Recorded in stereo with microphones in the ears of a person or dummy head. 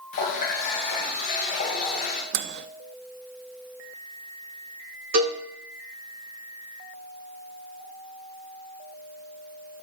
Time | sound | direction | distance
0.1 | a running tap | 40° left (ahead or behind) | 1.2 m
2.3 | a microwave | 60° right (ahead or behind) | 0.5 m
5.1 | a cowbell | 55° right (ahead or behind) | 3 m